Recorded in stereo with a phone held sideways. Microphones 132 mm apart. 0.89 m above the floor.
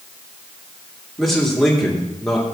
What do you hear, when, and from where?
1.2 s a man speaking: centre (ahead or behind), 2.5 m